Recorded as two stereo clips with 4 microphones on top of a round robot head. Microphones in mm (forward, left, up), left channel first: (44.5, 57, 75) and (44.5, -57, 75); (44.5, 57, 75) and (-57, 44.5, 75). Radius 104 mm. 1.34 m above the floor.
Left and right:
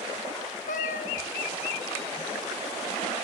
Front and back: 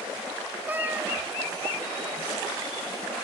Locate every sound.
0.7 s a cat meowing: 115° left, 1.9 m